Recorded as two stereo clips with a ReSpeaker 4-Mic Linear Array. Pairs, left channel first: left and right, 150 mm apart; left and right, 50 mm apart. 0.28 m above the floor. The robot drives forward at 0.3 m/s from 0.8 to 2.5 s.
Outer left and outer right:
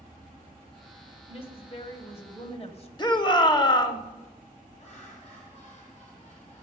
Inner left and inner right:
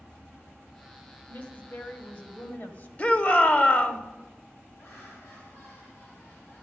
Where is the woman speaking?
40° left (ahead or behind), 1.6 m; by 2.9 s 45° left (ahead or behind), 1.5 m.